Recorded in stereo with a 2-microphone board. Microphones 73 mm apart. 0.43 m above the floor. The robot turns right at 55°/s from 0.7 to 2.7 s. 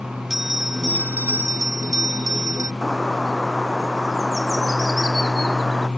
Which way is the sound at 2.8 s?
Centre (ahead or behind).